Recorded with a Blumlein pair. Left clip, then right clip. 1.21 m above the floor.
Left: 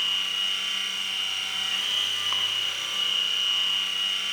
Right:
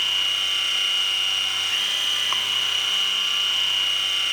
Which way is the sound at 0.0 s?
15° right.